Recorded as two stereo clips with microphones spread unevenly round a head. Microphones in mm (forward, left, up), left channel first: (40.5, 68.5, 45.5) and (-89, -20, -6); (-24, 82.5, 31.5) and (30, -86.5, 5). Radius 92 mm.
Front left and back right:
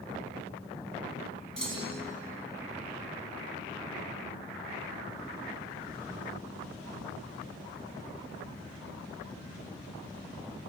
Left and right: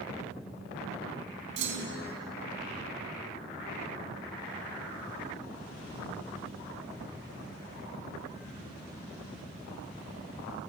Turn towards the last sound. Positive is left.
turn(degrees=-55)